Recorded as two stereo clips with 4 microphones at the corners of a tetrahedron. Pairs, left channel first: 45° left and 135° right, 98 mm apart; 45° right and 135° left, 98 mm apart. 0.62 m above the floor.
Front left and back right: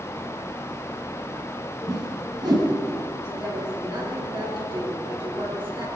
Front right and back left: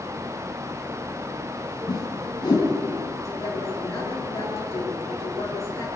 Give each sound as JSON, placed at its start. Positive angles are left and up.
{"t": 1.9, "sound": "a whoosh", "azimuth_deg": -90, "distance_m": 5.0}
{"t": 3.2, "sound": "a woman speaking", "azimuth_deg": -100, "distance_m": 8.5}